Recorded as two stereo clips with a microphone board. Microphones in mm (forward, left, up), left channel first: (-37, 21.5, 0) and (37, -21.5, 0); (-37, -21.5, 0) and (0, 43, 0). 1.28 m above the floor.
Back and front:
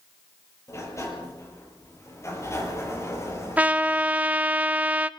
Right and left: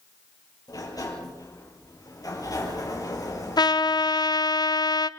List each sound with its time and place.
0.7 s a sliding door: 155° right, 6 m
3.6 s a trumpet: 105° right, 0.8 m